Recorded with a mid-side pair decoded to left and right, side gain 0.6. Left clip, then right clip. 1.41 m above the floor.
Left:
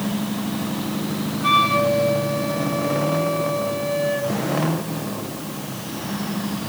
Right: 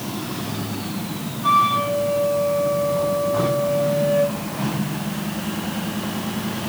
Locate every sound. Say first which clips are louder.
1.4 s a flute: even; 40° left, 3.5 m